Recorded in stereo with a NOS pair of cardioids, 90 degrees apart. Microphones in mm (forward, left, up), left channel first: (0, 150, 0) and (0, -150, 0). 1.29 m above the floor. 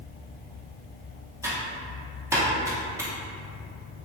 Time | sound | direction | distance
1.4 | typing on a keyboard | 10° right | 0.7 m